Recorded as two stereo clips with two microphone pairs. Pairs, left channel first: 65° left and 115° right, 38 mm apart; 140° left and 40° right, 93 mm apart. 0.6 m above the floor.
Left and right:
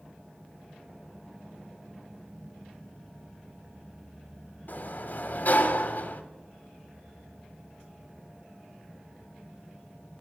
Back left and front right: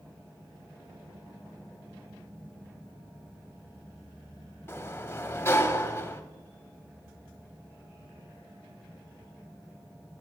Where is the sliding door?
80° left, 0.5 m.